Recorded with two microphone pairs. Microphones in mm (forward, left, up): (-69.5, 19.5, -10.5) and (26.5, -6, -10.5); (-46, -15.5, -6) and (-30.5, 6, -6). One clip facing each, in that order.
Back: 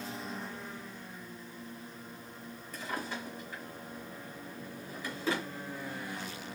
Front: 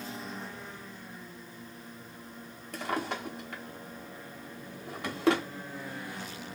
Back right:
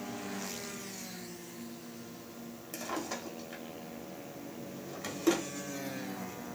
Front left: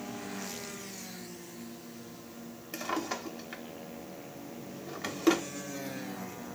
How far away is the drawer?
About 0.6 m.